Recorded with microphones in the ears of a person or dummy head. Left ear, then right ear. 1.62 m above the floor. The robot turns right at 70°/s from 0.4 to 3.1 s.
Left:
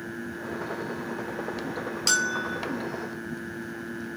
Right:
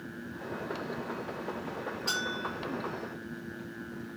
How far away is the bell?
About 0.9 m.